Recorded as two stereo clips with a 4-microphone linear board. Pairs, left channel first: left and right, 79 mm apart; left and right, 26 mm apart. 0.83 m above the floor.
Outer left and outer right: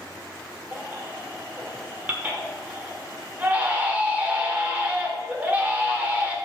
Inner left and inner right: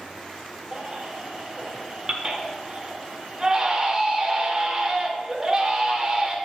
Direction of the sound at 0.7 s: 20° right (ahead or behind).